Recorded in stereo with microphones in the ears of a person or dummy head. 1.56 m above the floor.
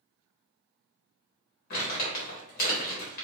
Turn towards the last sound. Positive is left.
turn(degrees=55)  # may be behind; listen again after turning